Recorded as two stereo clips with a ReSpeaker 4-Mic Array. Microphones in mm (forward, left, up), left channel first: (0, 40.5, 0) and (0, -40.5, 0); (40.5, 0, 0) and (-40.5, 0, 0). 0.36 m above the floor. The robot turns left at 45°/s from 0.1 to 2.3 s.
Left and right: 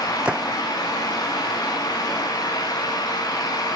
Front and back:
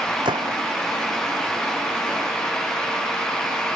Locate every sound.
0.2 s a gunshot: 165° right; by 0.6 s straight behind